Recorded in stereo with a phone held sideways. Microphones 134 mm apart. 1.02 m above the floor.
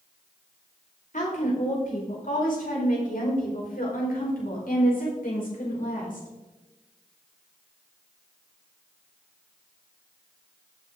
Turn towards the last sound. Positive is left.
turn(degrees=70)  # may be behind; listen again after turning